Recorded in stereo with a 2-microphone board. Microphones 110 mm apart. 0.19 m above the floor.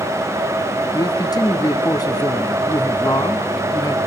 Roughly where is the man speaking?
Left.